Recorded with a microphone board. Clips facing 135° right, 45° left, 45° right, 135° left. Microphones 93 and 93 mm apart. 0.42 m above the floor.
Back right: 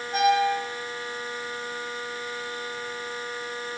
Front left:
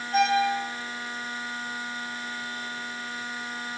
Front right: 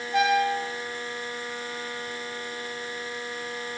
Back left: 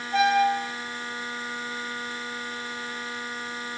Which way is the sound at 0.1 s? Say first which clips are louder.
Back right 1 dB, back left 2 dB; 160° left.